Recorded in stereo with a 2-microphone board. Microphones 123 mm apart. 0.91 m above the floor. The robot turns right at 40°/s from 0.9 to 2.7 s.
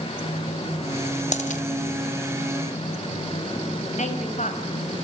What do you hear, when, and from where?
1.3 s a dropped coin: 65° left (ahead or behind), 1.9 m; by 1.6 s 75° left (ahead or behind), 1.9 m
4.0 s a woman speaking: 65° left (ahead or behind), 5 m